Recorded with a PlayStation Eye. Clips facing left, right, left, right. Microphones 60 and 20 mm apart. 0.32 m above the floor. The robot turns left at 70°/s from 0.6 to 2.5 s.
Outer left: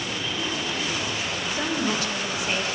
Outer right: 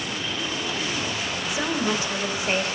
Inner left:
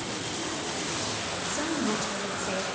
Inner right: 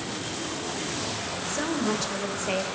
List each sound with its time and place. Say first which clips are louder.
1.5 s a woman speaking: outer right 1 dB, inner right 2 dB; 10° right (ahead or behind), 1.5 m; by 2.6 s 30° right (ahead or behind), 1.5 m